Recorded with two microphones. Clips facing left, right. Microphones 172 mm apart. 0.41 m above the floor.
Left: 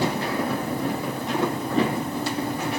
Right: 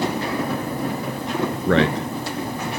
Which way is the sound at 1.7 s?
65° right (ahead or behind).